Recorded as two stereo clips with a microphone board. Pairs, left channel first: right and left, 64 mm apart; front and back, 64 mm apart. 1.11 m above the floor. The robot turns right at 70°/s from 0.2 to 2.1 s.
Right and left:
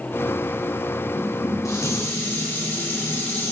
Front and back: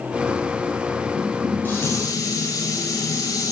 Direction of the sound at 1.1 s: 95° right.